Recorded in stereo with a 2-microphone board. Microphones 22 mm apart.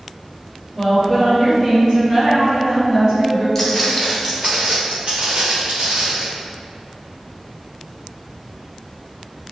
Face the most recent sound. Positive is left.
turn(degrees=-85)